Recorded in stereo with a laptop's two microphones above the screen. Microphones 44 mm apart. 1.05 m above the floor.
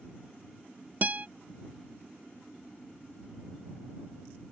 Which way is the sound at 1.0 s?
40° right (ahead or behind).